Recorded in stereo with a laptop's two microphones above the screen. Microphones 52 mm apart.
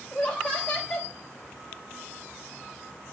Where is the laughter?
20° left (ahead or behind), 5 m.